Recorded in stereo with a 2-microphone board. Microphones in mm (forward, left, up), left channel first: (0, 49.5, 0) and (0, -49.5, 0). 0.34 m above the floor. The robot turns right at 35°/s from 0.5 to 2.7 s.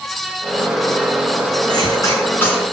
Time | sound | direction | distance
1.7 | a cough | 45° left (ahead or behind) | 4 m